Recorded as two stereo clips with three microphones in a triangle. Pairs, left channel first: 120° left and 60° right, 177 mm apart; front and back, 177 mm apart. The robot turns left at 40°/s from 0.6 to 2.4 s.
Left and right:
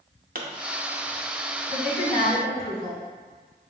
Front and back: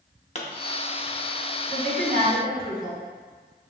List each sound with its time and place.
0.3 s a pop: 40° right, 0.6 m
1.7 s a woman speaking: 155° left, 1.6 m; by 3.0 s 125° left, 1.6 m